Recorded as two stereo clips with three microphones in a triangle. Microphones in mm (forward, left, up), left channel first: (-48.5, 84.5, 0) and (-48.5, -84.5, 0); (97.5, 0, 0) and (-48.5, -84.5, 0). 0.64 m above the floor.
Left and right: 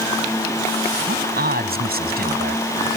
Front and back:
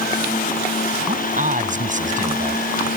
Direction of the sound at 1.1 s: 110° right.